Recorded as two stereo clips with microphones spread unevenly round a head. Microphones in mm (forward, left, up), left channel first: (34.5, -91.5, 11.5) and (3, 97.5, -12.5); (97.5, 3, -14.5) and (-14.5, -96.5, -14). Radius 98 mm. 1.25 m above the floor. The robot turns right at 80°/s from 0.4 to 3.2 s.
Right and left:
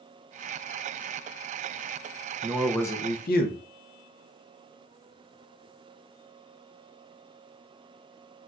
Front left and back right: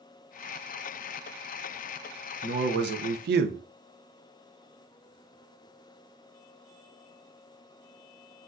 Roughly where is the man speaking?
Behind.